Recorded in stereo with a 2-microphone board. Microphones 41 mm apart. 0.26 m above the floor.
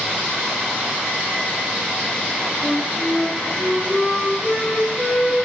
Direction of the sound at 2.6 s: 15° right (ahead or behind).